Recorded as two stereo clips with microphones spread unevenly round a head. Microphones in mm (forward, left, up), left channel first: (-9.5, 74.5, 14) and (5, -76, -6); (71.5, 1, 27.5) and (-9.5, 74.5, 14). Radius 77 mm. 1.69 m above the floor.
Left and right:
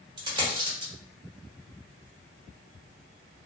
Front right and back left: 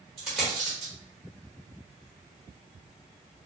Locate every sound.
0.2 s a dropped coin: 125° right, 1.5 m